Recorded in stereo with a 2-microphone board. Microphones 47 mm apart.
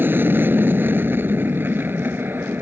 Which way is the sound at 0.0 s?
50° right (ahead or behind).